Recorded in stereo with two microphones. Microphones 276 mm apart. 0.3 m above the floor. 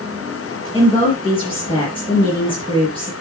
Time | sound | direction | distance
0.7 | a woman speaking | 20° left (ahead or behind) | 4.5 m